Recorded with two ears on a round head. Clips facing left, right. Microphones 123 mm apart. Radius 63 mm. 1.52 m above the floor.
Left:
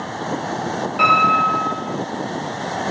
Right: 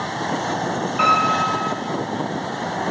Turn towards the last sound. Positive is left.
turn(degrees=40)  # may be behind; listen again after turning